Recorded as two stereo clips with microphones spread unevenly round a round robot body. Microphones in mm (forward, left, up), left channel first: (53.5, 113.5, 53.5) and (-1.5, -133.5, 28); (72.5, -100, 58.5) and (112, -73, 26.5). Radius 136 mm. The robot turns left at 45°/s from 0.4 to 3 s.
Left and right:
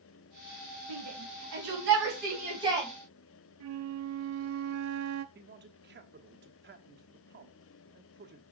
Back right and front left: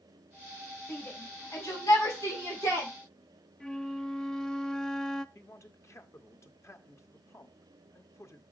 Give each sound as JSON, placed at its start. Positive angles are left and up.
{"t": 0.9, "sound": "a shout", "azimuth_deg": -95, "distance_m": 4.5}
{"t": 3.6, "sound": "a flute", "azimuth_deg": -75, "distance_m": 0.7}
{"t": 5.3, "sound": "a man speaking", "azimuth_deg": -100, "distance_m": 1.5}